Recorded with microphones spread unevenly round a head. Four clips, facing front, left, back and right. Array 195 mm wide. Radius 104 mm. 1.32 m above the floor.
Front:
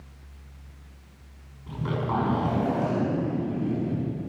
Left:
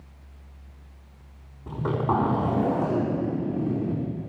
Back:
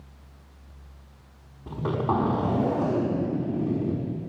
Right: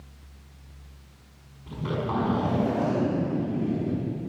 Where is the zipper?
145° left, 4.5 m.